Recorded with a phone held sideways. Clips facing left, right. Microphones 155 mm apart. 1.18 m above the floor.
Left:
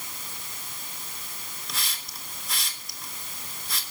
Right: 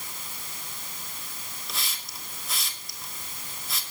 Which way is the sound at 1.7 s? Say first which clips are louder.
Even; centre (ahead or behind).